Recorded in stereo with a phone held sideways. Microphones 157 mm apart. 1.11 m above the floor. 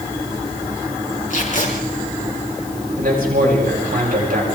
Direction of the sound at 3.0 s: 75° right (ahead or behind).